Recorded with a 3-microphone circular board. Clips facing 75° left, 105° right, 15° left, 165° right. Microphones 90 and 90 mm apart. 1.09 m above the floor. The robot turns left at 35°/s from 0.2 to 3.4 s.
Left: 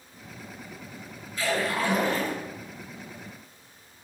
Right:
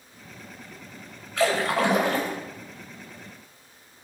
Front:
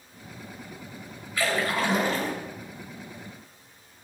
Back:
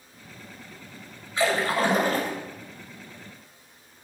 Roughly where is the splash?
Right.